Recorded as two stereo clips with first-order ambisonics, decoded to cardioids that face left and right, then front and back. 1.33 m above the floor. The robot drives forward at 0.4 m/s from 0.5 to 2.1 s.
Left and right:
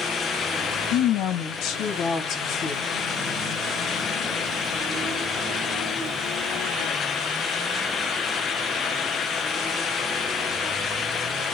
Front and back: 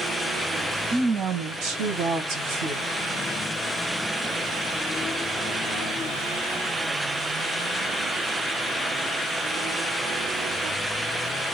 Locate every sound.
0.9 s a woman speaking: 115° left, 0.7 m; by 2.8 s 140° left, 1.0 m